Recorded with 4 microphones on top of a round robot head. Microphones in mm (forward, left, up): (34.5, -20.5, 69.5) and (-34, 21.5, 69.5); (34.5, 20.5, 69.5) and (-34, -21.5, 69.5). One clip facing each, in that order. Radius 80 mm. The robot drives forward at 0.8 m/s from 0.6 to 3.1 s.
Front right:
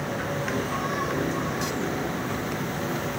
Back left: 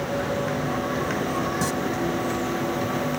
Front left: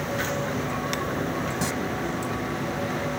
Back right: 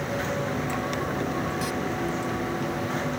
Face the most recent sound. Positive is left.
turn(degrees=105)